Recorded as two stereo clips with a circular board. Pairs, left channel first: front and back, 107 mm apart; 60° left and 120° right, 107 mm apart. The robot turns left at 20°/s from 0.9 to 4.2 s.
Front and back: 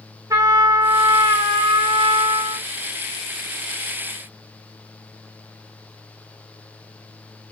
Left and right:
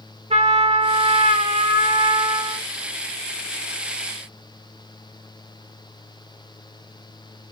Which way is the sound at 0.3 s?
125° right.